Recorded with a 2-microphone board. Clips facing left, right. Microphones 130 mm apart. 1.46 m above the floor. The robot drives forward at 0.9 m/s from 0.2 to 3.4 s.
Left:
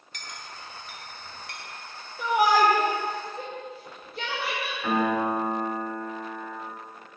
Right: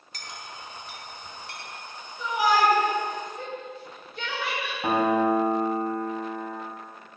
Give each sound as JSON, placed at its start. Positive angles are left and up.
{"t": 0.1, "sound": "a clink", "side_deg": -35, "distance_m": 1.4}
{"t": 2.2, "sound": "a shout", "side_deg": 70, "distance_m": 0.8}
{"t": 4.8, "sound": "a piano", "side_deg": -40, "distance_m": 1.7}